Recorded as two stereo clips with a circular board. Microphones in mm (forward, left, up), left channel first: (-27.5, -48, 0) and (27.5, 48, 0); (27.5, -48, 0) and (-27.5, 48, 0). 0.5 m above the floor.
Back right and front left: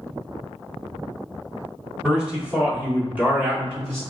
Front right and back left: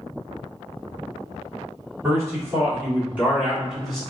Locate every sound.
2.0 s a man speaking: 135° left, 1.4 m; by 4.0 s 30° left, 1.3 m